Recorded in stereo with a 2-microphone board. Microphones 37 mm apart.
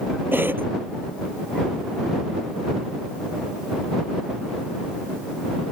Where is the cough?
80° right.